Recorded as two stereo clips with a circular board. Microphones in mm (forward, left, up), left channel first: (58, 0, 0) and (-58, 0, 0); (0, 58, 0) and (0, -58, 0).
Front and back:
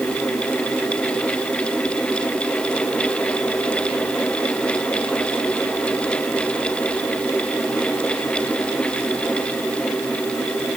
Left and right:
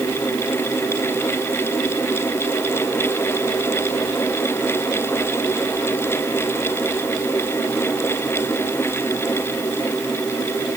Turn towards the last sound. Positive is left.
No sound to turn to.